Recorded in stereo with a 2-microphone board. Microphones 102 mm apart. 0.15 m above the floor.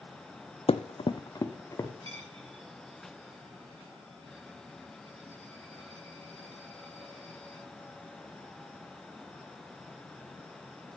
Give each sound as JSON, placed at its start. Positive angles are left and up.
{"t": 0.7, "sound": "running footsteps", "side_deg": 70, "distance_m": 0.5}
{"t": 2.0, "sound": "a dropped coin", "side_deg": -75, "distance_m": 5.0}